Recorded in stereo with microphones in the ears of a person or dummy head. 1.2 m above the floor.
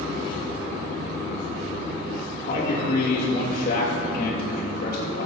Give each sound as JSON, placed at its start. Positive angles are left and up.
{"t": 2.5, "sound": "a man speaking", "side_deg": 55, "distance_m": 1.8}